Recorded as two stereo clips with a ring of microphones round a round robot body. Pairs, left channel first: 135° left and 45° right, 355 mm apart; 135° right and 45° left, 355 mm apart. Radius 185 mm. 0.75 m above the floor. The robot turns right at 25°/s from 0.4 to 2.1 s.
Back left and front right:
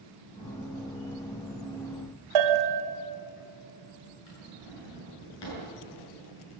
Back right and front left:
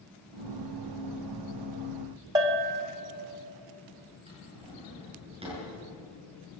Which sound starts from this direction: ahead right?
A bell, at 2.4 s.